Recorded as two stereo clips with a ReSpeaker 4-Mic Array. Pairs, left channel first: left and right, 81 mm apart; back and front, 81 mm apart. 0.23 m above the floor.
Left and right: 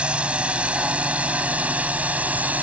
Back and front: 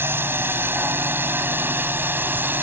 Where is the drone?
30° right; by 2.6 s 40° right.